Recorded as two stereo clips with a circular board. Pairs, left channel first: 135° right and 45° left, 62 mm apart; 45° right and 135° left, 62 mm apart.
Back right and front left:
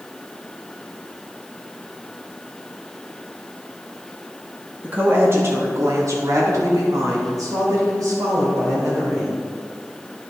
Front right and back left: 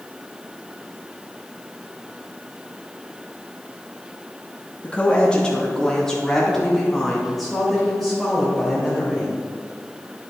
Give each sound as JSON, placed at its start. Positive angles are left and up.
{"t": 4.8, "sound": "a woman speaking", "azimuth_deg": 5, "distance_m": 1.1}